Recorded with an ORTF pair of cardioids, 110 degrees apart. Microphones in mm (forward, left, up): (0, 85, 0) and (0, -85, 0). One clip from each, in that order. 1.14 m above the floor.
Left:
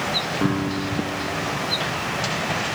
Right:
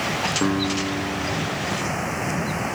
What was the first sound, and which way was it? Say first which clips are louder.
A guitar: right 1 dB; 15° right.